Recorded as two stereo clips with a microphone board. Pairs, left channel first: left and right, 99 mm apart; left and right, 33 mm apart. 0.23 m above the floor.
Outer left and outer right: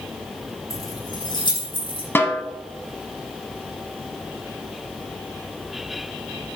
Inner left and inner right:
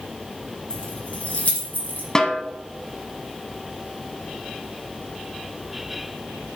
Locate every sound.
0.7 s keys jangling: 30° left (ahead or behind), 1.8 m; by 2.0 s 60° left (ahead or behind), 3 m
2.1 s a snare drum: 20° left (ahead or behind), 1.1 m